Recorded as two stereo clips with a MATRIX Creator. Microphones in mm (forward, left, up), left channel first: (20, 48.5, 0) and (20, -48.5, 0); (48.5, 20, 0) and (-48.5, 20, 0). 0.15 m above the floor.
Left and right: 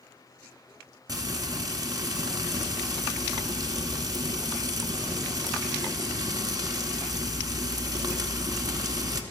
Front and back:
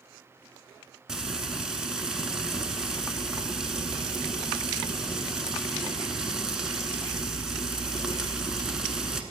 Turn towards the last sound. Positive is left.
turn(degrees=-100)